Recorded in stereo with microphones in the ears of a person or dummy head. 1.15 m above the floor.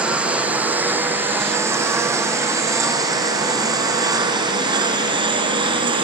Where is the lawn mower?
5° left (ahead or behind); by 6.0 s 15° right (ahead or behind).